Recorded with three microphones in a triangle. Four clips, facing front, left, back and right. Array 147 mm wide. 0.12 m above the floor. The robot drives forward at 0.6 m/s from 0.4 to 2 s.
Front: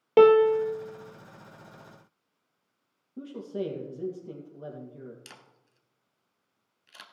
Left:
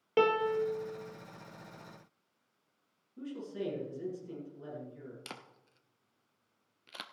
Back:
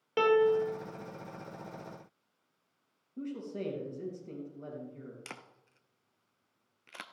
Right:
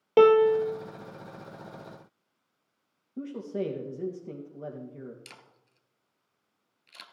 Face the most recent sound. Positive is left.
turn(degrees=135)